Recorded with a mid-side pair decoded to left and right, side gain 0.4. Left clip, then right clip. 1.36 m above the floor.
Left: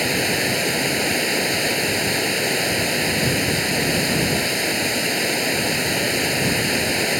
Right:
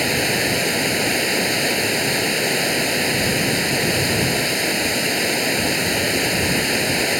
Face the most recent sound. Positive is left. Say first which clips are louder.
# right 1 dB
turn(degrees=-10)